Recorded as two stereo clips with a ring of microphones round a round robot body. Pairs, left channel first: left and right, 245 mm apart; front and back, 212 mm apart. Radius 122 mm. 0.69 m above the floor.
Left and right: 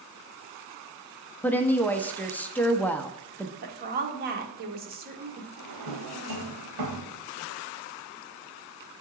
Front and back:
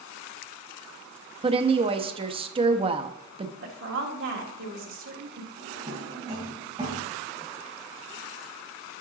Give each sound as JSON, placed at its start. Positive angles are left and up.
{"t": 1.4, "sound": "a woman speaking", "azimuth_deg": 165, "distance_m": 0.6}
{"t": 3.6, "sound": "a woman speaking", "azimuth_deg": -145, "distance_m": 1.5}
{"t": 5.6, "sound": "a drawer", "azimuth_deg": -105, "distance_m": 1.6}